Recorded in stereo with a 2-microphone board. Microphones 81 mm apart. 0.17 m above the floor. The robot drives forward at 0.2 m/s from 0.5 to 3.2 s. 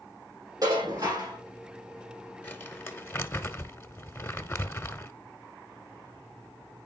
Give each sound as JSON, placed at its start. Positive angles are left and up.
{"t": 0.6, "sound": "dishes clattering", "side_deg": -45, "distance_m": 4.5}
{"t": 2.4, "sound": "crumpling", "side_deg": 25, "distance_m": 0.9}